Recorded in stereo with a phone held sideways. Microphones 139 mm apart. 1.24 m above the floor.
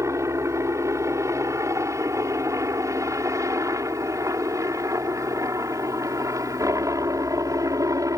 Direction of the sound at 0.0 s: 20° right (ahead or behind).